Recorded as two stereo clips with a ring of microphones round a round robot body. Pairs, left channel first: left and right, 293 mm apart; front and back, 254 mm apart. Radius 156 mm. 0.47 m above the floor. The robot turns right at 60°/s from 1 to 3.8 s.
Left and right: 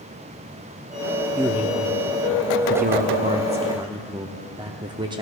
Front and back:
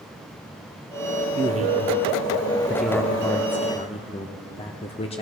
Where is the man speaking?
Straight behind, 0.7 m; by 5.2 s 35° right, 0.7 m.